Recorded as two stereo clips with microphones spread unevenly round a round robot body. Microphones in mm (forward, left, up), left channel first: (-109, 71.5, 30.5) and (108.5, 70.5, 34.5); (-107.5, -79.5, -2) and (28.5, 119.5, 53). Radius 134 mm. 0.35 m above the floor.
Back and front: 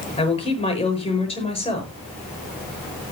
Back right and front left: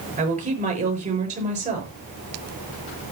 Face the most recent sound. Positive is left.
turn(degrees=115)